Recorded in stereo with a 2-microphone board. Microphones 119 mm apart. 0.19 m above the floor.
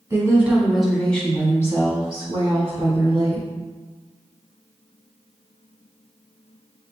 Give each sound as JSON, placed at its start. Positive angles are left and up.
{"t": 0.1, "sound": "a woman speaking", "side_deg": -20, "distance_m": 1.2}